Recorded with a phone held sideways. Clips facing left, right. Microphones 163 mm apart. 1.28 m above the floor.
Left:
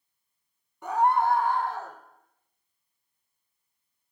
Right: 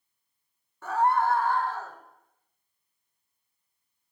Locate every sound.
0.8 s a scream: 20° left (ahead or behind), 0.7 m